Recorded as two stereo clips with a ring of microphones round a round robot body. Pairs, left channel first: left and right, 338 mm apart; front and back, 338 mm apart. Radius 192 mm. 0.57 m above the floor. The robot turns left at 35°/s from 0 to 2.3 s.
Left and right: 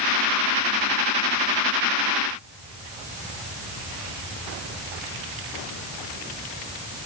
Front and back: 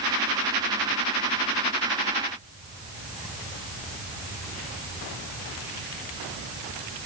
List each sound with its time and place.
Only background noise.